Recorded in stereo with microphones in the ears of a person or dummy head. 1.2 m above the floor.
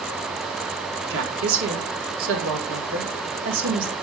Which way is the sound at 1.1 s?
75° right (ahead or behind).